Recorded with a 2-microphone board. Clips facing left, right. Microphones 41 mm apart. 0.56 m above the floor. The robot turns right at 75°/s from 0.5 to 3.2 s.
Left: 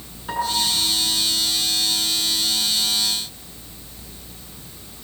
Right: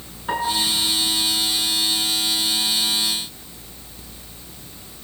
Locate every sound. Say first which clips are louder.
0.3 s a piano: right 1 dB; 20° right (ahead or behind), 7 m; by 0.7 s 35° right (ahead or behind), 7 m